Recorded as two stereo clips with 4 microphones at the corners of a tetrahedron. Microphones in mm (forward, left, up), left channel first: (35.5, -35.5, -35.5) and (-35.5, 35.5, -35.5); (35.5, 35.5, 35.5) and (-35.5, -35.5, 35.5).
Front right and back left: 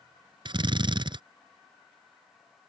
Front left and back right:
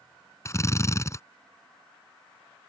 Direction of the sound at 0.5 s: 105° left.